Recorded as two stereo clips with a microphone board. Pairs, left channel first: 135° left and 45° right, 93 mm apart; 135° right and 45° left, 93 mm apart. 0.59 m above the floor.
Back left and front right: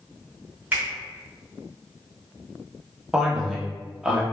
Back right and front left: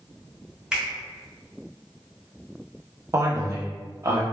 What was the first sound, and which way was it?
A finger snap, 20° right.